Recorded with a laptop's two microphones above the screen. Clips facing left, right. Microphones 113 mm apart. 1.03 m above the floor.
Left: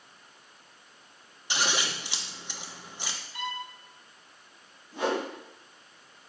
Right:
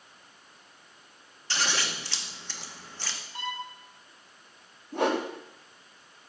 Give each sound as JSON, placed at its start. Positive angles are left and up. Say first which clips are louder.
{"t": 1.5, "sound": "scissors", "louder": "left 1 dB", "side_deg": 15, "distance_m": 0.9}
{"t": 3.3, "sound": "a violin", "louder": "even", "side_deg": -30, "distance_m": 2.0}
{"t": 4.9, "sound": "a whoosh", "louder": "right 3 dB", "side_deg": -60, "distance_m": 1.2}